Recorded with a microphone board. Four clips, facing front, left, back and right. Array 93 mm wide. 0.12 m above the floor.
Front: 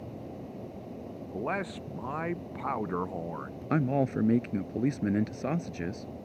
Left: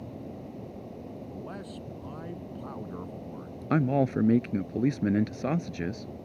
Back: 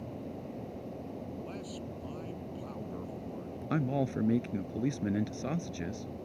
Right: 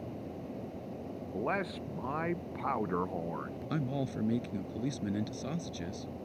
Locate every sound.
1.3 s a man speaking: 40° right
3.7 s a man speaking: 65° left